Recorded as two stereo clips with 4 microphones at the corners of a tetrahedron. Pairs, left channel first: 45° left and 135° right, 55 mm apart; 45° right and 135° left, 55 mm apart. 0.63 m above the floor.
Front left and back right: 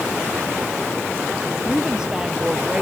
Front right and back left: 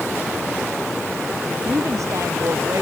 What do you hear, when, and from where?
1.6 s a woman speaking: 150° left